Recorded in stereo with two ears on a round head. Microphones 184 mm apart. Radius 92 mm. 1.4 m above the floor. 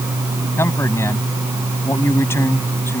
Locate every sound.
0.6 s a man speaking: 15° left (ahead or behind)